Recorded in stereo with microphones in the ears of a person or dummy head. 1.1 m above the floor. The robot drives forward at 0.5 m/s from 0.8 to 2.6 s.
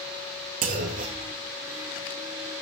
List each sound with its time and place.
0.6 s a clunk: 40° right (ahead or behind), 1.7 m; by 1.3 s 35° right (ahead or behind), 1.9 m